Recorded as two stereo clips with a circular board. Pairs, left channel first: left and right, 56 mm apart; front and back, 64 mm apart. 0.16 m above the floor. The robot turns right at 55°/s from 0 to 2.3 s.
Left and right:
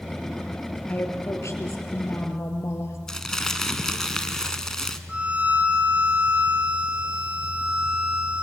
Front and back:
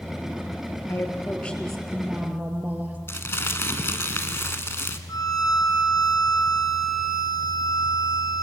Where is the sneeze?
I don't hear a sneeze.